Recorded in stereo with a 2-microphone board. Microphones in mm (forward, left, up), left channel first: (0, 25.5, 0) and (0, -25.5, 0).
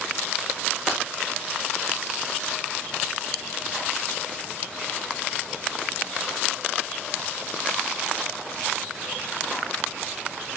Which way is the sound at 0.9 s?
10° right (ahead or behind).